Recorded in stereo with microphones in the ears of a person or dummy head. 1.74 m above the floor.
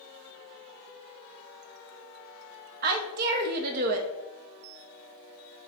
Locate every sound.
2.8 s a woman speaking: 50° right (ahead or behind), 0.7 m